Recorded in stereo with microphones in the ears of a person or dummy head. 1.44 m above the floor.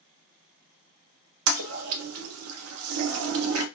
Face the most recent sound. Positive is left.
turn(degrees=-85)